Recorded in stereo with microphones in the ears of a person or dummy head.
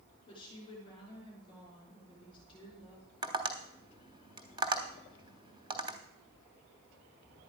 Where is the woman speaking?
25° left (ahead or behind), 3.5 m.